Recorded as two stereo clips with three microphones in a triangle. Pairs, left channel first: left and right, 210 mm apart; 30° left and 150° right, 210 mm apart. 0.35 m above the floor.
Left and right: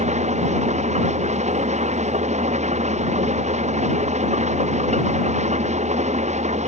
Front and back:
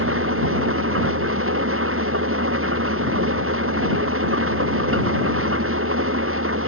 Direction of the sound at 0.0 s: 145° right.